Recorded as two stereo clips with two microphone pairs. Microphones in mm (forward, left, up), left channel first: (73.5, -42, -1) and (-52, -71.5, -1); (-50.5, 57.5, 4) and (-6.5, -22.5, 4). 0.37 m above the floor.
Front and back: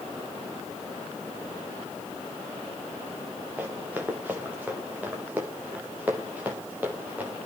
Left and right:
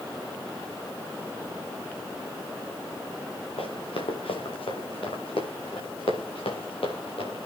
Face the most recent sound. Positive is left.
turn(degrees=115)